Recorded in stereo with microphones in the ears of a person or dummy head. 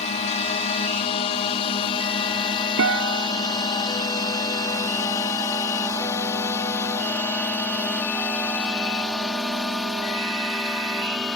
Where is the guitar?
75° right (ahead or behind).